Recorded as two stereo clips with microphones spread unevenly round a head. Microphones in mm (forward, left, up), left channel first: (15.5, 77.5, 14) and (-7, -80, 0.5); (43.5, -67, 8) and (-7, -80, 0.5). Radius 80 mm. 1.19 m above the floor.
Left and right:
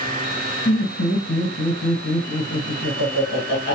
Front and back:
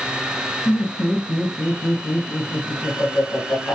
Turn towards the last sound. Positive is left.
turn(degrees=55)